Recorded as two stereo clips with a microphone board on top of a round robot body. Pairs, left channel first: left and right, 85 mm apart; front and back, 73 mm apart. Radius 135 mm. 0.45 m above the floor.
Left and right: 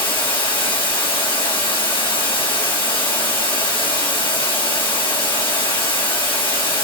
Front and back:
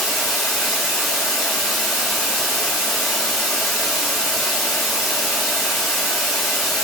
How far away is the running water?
About 2.5 m.